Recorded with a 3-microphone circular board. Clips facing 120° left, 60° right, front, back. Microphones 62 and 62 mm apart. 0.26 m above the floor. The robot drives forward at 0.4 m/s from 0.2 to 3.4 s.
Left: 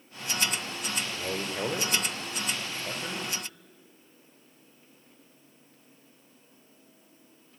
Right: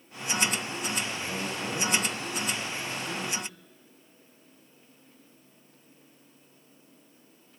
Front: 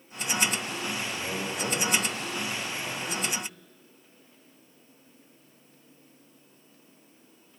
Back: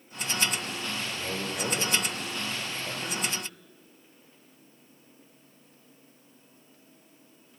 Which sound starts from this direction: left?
A man speaking, at 1.1 s.